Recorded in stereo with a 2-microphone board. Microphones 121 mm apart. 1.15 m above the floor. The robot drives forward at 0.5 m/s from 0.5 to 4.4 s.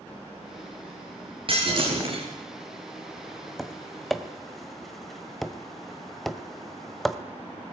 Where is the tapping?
Centre (ahead or behind), 1.6 m.